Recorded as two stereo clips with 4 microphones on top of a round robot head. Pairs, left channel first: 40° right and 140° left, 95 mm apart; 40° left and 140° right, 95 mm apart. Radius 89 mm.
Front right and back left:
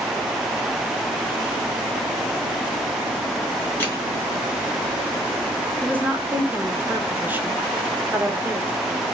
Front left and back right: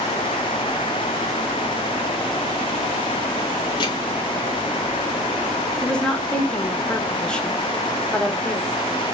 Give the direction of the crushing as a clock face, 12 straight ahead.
11 o'clock.